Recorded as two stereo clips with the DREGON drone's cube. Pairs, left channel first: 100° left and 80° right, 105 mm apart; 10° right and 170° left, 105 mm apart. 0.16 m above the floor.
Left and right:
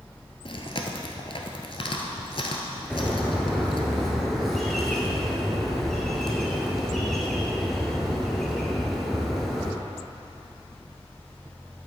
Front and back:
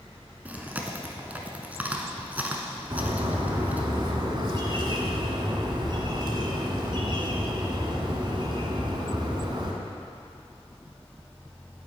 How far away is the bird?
About 1.4 m.